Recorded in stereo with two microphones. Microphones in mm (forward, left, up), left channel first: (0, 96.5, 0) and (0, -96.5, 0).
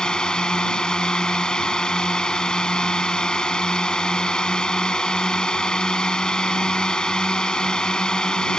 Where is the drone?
5° left (ahead or behind).